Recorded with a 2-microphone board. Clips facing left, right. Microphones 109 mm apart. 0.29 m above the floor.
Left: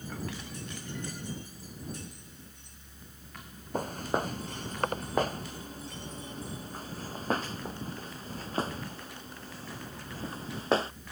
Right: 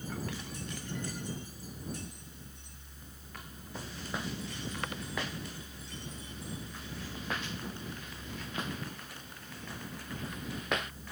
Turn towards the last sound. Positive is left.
turn(degrees=30)  # may be behind; listen again after turning